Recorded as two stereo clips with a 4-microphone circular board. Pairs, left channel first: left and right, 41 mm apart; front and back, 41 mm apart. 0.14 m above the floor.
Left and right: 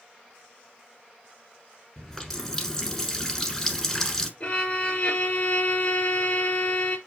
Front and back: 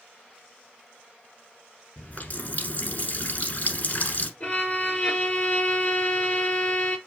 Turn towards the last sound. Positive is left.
turn(degrees=45)